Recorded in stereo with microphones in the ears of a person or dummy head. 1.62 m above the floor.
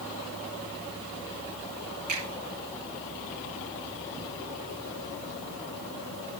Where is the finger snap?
40° right (ahead or behind), 5 m.